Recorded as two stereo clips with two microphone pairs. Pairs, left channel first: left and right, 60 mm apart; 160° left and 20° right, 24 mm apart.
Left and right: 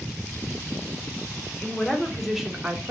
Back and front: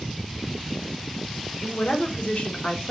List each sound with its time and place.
1.6 s a woman speaking: 160° left, 1.1 m; by 2.9 s 155° right, 0.8 m